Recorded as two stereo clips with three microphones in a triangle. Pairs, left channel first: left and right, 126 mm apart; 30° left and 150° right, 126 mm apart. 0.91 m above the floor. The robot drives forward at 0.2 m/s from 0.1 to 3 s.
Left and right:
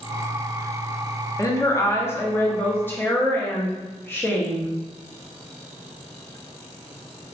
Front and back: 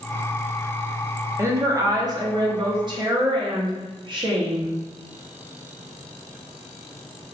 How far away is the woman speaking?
About 0.5 m.